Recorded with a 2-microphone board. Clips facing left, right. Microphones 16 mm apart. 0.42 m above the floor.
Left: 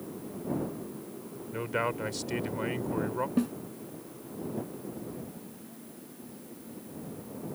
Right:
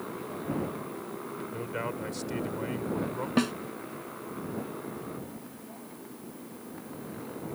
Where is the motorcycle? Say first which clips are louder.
Right 3 dB; 65° right (ahead or behind); by 7.5 s 70° right (ahead or behind).